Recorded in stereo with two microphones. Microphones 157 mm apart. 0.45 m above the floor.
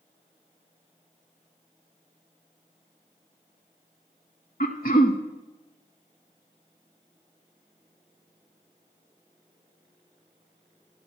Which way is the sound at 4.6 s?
65° left (ahead or behind).